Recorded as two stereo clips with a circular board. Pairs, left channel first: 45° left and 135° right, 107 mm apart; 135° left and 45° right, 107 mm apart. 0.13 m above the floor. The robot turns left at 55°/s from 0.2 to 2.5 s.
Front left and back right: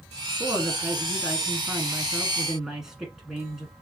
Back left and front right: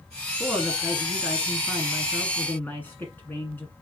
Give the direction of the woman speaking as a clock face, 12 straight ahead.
3 o'clock.